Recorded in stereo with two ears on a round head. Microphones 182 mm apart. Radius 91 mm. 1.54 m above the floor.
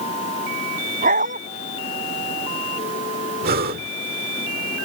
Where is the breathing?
50° right (ahead or behind).